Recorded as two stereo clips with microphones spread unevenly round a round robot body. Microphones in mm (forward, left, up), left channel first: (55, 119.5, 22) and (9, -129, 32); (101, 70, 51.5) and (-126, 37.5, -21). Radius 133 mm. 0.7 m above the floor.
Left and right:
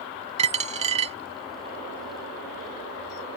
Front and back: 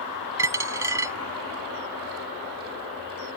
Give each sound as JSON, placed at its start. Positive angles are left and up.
{"t": 0.4, "sound": "a dropped coin", "azimuth_deg": -70}